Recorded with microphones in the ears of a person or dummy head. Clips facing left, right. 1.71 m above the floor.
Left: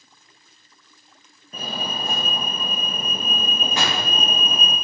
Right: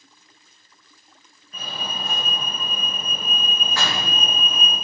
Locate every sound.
1.5 s a fire alarm: 40° left (ahead or behind), 1.0 m
3.8 s a door slam: 30° left (ahead or behind), 2.5 m